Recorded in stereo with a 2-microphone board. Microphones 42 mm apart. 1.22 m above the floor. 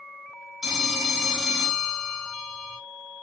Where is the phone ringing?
10° right (ahead or behind), 1.1 m.